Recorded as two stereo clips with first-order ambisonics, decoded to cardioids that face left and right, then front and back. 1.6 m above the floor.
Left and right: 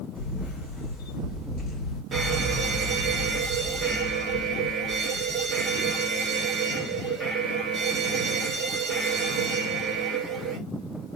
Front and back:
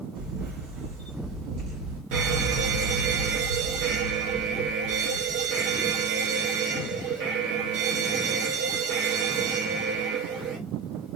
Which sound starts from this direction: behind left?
A camera shutter, at 0.1 s.